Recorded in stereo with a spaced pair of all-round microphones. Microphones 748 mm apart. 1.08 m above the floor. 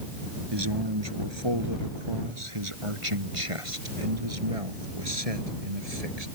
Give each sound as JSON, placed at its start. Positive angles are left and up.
{"t": 0.5, "sound": "a man speaking", "side_deg": -35}